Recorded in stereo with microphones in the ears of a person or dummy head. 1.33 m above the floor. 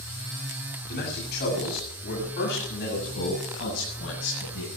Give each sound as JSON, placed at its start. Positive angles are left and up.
{"t": 0.9, "sound": "a man speaking", "side_deg": 55, "distance_m": 8.0}